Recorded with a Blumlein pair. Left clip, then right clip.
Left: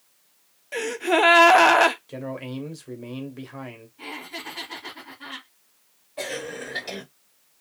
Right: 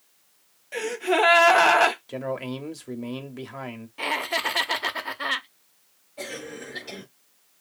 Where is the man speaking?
10° right, 0.8 m.